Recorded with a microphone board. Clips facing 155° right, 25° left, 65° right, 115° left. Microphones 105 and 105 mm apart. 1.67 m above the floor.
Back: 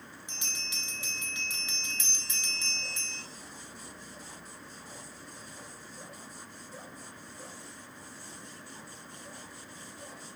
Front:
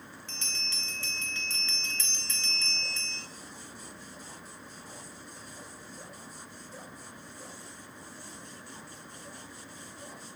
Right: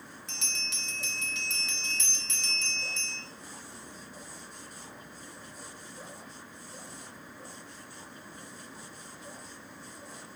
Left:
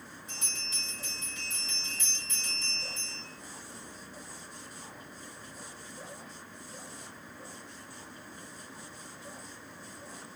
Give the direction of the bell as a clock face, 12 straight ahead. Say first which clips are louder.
Front 1 dB, right 4 dB; 3 o'clock.